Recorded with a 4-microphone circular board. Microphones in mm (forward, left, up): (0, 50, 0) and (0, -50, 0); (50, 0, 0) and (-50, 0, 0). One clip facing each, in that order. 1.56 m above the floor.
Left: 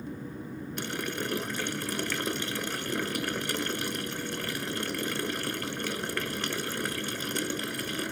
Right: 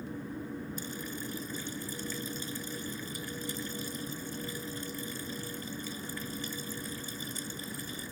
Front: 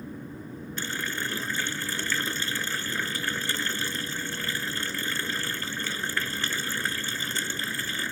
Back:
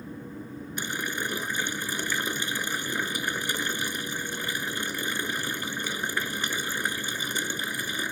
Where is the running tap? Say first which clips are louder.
Left 6 dB, back 1 dB; 105° left.